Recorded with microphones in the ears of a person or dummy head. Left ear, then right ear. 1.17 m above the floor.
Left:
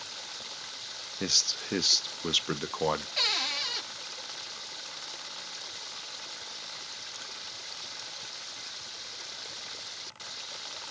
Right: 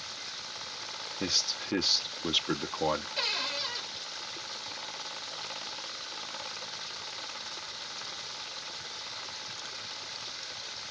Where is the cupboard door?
15° left (ahead or behind), 0.7 m.